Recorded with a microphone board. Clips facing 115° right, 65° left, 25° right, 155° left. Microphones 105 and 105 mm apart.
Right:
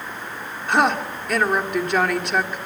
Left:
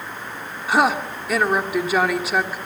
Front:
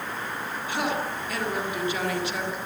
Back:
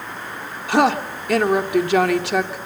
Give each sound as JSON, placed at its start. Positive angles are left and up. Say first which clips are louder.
{"t": 0.7, "sound": "a woman speaking", "louder": "left 1 dB, back 11 dB", "azimuth_deg": 155, "distance_m": 2.0}